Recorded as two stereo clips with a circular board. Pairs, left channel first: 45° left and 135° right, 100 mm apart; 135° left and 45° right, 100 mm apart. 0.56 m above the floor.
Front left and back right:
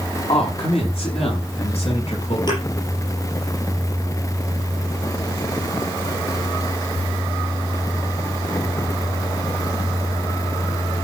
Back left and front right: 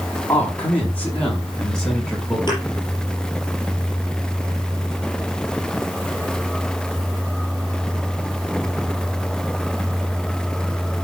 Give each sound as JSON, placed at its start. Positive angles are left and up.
{"t": 0.3, "sound": "a man speaking", "azimuth_deg": 70, "distance_m": 5.0}
{"t": 2.5, "sound": "a thud", "azimuth_deg": 90, "distance_m": 10.0}